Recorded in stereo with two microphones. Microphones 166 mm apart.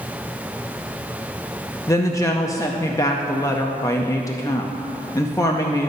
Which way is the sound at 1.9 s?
20° left (ahead or behind).